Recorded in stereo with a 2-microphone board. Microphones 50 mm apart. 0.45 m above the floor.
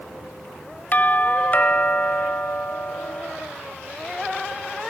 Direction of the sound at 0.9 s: 35° left (ahead or behind).